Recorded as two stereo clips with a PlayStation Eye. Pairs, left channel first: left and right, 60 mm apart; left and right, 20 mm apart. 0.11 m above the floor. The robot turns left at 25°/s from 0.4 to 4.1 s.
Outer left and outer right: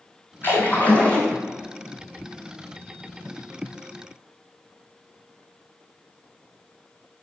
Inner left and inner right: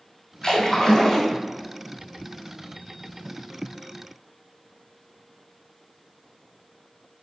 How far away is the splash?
About 2.0 m.